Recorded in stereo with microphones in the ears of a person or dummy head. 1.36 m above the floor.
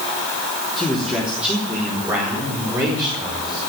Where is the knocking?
No knocking in this recording.